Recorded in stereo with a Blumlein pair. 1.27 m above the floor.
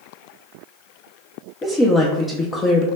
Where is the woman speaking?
15° left, 0.6 m.